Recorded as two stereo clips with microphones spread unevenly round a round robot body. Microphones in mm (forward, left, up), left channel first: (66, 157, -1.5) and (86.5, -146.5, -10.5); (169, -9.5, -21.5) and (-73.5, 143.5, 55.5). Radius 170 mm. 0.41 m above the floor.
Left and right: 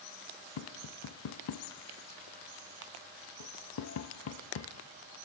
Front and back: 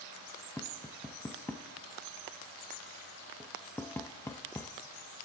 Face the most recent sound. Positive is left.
turn(degrees=45)